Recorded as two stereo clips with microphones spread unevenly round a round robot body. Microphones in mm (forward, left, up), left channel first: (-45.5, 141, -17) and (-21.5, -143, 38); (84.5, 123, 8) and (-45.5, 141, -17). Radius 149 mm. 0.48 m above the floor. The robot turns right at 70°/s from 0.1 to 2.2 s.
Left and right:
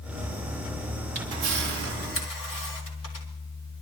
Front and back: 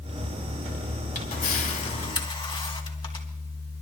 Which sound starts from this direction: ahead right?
A camera shutter, at 1.1 s.